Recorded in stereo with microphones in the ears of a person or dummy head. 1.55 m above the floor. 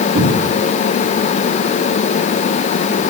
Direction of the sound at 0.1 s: 65° right (ahead or behind).